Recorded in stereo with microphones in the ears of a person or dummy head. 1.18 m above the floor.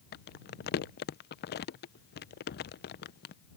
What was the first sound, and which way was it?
Crumpling, 45° left (ahead or behind).